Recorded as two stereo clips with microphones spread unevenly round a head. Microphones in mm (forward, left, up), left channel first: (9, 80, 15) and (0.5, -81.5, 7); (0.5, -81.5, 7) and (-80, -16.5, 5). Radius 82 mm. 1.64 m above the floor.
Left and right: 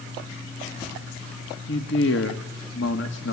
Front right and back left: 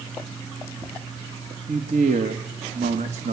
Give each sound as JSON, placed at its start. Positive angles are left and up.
{"t": 1.7, "sound": "a man speaking", "azimuth_deg": 100, "distance_m": 2.0}